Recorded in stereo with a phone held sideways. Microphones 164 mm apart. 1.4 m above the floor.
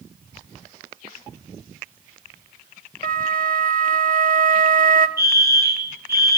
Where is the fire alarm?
75° right (ahead or behind), 3 m.